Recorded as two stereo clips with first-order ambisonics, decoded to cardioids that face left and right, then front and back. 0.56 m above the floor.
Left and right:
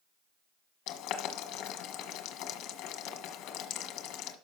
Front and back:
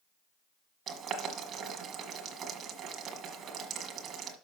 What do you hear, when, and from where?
0.9 s boiling: 120° left, 1.4 m